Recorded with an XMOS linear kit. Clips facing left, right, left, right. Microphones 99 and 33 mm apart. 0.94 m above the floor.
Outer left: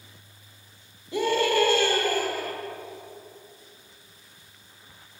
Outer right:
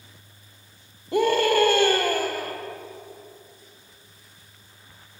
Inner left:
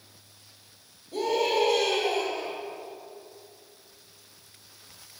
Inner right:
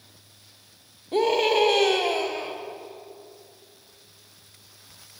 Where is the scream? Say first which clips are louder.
Outer right 3 dB, inner right 4 dB; 50° right (ahead or behind), 1.2 m.